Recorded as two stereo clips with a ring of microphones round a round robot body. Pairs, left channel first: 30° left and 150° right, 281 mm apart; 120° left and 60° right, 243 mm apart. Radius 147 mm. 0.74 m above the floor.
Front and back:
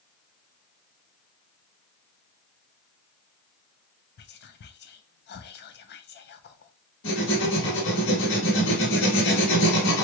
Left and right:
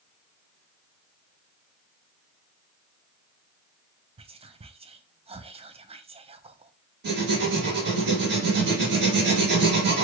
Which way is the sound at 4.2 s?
5° right.